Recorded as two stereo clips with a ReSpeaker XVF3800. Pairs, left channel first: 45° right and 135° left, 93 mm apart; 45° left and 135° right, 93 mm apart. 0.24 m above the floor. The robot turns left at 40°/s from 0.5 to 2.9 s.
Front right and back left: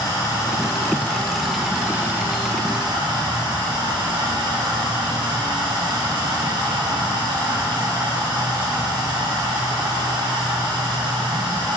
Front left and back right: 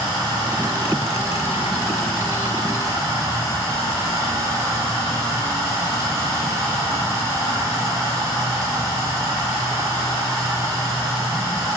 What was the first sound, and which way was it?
Running water, 95° right.